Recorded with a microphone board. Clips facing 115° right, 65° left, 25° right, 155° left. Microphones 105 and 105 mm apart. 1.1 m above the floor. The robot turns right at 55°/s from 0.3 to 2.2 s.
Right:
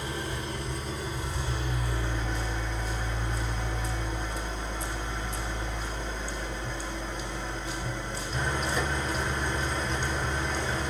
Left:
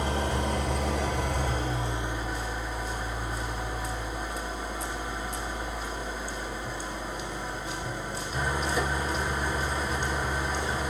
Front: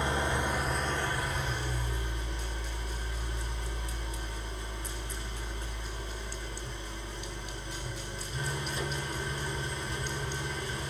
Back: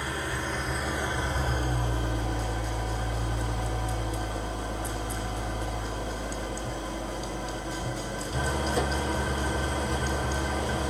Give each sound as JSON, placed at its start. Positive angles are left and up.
{"t": 0.0, "sound": "an engine running", "azimuth_deg": 45, "distance_m": 1.9}